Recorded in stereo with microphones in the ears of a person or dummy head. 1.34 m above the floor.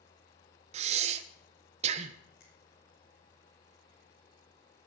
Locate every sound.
0.7 s breathing: 40° right (ahead or behind), 1.0 m
2.4 s a finger snap: 55° left (ahead or behind), 4 m